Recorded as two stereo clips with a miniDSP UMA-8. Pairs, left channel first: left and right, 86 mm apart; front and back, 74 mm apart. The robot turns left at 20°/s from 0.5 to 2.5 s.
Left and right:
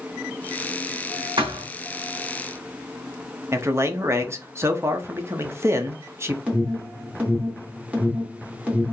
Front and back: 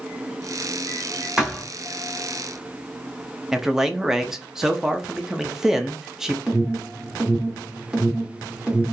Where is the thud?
100° right, 2 m; by 1.7 s 105° right, 2 m.